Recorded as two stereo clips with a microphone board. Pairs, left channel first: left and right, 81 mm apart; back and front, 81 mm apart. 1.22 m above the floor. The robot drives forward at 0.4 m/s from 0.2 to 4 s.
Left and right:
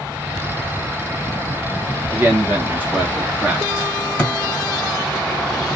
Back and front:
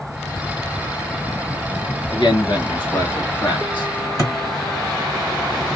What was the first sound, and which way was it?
A man speaking, 155° right.